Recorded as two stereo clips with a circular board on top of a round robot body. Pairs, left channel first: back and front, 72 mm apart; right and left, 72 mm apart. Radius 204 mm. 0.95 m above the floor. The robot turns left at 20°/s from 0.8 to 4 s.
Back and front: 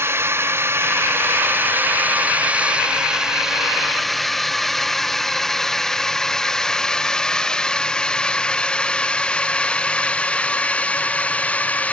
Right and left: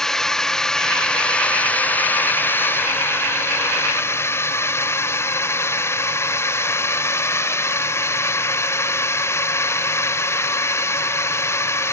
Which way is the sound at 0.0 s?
10° right.